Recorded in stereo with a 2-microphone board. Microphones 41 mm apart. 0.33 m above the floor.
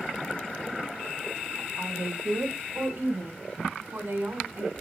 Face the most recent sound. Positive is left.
turn(degrees=-65)  # may be behind; listen again after turning